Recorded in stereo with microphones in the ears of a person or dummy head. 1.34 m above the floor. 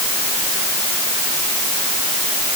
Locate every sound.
Only background noise.